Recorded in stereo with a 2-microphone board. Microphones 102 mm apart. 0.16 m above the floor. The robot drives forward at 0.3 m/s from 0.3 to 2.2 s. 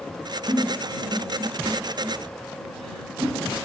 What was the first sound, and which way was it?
A giggle, 60° right (ahead or behind).